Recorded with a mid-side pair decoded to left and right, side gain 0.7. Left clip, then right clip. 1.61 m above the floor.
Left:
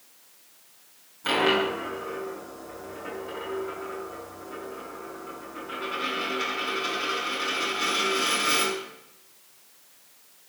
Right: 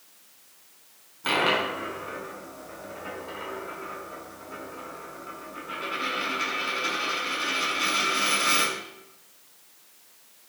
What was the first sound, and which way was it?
A dropped coin, 10° right.